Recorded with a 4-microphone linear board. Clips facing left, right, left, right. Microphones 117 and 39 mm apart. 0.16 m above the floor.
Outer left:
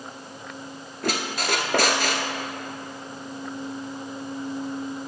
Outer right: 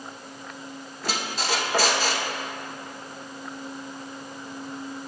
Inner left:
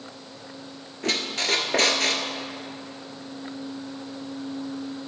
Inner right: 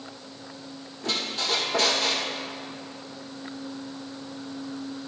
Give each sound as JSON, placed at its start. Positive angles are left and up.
{"t": 1.0, "sound": "a squeak", "side_deg": 65, "distance_m": 1.1}